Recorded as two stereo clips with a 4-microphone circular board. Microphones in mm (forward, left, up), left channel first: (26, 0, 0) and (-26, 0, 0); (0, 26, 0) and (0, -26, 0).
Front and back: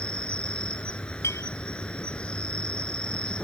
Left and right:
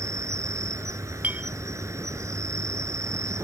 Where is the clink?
30° right.